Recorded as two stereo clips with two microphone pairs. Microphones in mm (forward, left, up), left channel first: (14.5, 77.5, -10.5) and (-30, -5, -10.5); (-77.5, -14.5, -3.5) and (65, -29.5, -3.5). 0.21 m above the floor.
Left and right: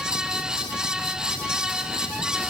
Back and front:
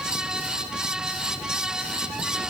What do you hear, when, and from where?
Only background noise.